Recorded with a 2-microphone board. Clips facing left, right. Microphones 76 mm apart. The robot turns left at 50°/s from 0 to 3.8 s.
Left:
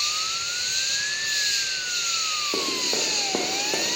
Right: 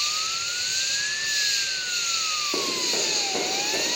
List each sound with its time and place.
0.0 s an insect: 110° left, 2 m; by 4.0 s 80° right, 2 m
2.5 s running footsteps: 10° left (ahead or behind), 1.7 m; by 4.0 s 25° left (ahead or behind), 1.7 m